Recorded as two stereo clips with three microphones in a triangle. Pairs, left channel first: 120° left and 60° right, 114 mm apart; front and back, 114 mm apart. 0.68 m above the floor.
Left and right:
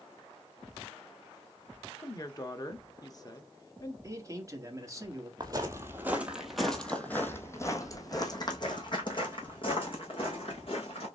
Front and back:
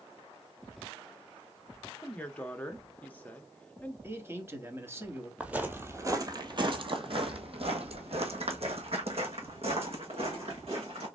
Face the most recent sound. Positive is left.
turn(degrees=150)